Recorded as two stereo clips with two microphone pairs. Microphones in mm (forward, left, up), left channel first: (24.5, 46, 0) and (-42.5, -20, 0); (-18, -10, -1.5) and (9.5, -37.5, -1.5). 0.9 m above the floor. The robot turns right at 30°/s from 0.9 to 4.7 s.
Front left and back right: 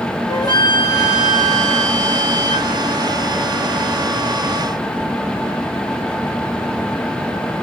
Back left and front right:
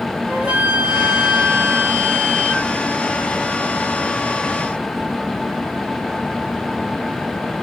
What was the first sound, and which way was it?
A flute, 5° left.